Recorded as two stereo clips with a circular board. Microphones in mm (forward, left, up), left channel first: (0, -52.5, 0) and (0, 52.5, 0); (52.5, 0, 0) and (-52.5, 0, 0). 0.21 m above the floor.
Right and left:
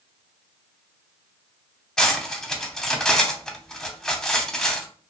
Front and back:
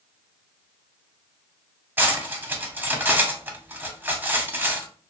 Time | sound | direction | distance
2.0 | cutlery clinking | 165° right | 0.5 m